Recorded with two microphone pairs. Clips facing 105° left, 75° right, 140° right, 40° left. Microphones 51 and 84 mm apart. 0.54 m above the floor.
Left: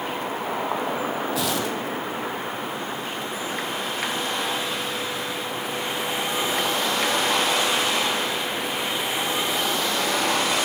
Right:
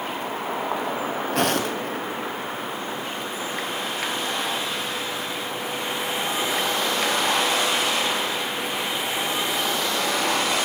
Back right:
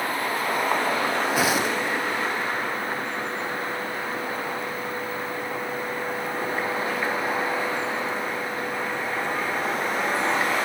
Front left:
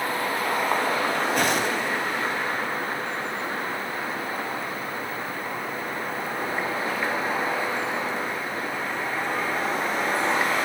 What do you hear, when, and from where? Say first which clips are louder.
1.3 s footsteps: right 2 dB, back right 1 dB; 55° right, 0.9 m